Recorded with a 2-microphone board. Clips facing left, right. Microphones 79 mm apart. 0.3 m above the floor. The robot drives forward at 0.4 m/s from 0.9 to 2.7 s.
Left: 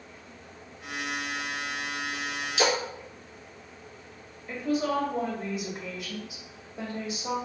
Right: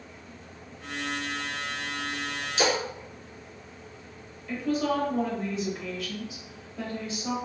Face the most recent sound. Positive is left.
turn(degrees=20)  # may be behind; listen again after turning